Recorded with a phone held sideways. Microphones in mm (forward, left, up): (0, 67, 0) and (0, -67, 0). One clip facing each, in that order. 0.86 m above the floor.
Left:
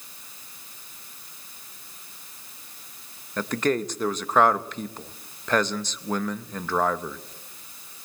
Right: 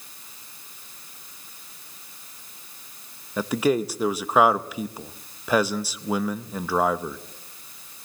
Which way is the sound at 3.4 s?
10° right (ahead or behind).